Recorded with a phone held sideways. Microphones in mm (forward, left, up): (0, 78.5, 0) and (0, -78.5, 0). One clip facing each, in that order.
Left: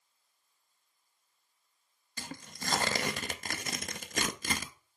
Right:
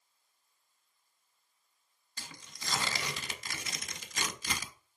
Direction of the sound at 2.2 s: 55° left (ahead or behind).